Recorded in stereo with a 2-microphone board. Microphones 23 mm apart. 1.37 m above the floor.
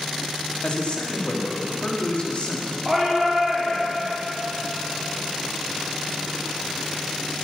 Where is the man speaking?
55° left (ahead or behind), 2.5 m.